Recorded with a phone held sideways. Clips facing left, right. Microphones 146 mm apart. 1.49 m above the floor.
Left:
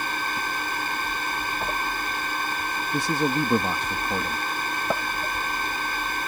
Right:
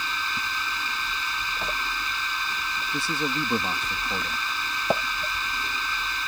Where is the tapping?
10° right (ahead or behind).